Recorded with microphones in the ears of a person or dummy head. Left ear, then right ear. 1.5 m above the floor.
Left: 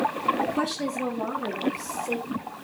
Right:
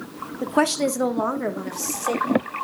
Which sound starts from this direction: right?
A woman speaking, at 0.4 s.